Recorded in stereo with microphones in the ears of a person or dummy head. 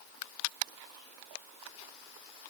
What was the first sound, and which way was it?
Only background noise.